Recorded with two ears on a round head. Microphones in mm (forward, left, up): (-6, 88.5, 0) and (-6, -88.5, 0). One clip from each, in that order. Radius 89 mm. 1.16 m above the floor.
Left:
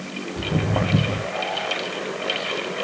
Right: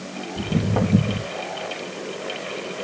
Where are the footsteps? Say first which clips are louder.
Even; 30° left (ahead or behind), 1.4 m.